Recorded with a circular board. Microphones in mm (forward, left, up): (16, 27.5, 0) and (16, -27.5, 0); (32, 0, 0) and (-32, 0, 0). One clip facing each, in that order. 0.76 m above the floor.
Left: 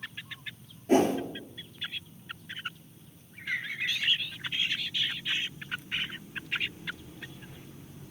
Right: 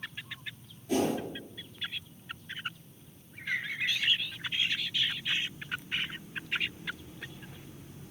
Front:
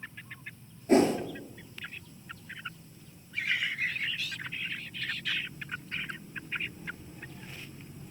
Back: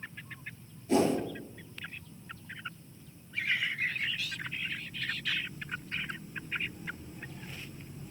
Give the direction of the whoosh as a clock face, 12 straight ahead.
10 o'clock.